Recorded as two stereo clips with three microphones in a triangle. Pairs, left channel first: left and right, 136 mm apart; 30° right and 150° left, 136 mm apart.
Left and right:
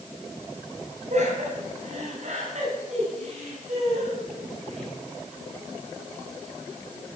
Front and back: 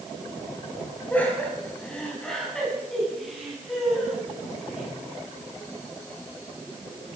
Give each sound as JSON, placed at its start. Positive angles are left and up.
{"t": 1.1, "sound": "laughter", "azimuth_deg": -105, "distance_m": 3.5}